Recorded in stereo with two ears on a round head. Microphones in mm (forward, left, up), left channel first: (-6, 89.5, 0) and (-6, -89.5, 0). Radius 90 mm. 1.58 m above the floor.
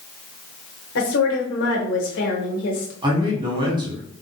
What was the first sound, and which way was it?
A woman speaking, 65° left (ahead or behind).